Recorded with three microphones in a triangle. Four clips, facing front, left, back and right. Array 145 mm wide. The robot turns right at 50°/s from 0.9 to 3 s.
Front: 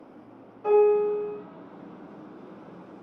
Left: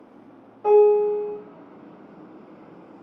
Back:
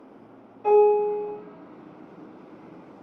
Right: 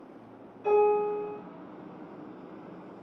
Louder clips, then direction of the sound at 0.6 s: Left 8 dB, back 2 dB; 100° left.